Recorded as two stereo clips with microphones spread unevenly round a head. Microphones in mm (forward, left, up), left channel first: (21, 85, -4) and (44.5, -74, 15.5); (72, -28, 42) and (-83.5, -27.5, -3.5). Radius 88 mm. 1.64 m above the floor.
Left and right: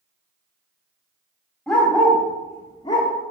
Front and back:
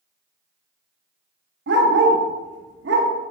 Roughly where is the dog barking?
Behind.